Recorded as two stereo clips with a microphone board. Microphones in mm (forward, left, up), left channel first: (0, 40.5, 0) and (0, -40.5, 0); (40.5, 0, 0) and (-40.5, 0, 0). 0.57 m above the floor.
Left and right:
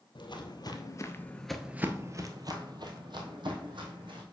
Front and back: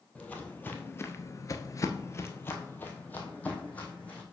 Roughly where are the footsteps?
Left.